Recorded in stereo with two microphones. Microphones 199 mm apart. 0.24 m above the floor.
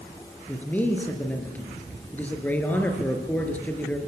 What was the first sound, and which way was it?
A man speaking, 10° left (ahead or behind).